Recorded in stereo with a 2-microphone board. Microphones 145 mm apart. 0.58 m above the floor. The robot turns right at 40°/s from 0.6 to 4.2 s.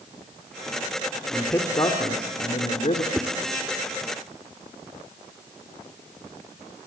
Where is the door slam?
No door slam in this recording.